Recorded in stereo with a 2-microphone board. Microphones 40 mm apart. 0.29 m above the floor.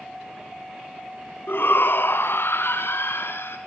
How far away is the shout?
About 2 m.